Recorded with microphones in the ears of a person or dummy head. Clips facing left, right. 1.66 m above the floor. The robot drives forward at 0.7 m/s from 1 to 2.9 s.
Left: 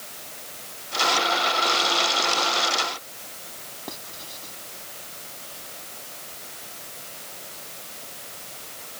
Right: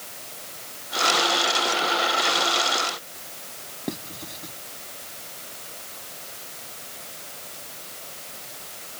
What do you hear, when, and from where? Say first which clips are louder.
3.9 s writing: right 8 dB; 30° right (ahead or behind)